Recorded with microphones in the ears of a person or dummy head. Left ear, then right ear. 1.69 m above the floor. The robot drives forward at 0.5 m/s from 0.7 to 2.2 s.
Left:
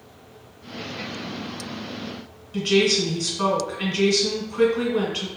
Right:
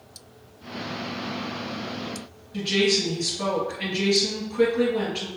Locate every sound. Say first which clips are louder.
2.5 s a woman speaking: left 3 dB; 85° left, 1.9 m